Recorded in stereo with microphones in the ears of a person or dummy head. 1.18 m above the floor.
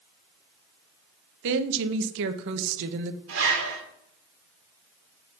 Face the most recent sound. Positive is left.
turn(degrees=-65)  # may be behind; listen again after turning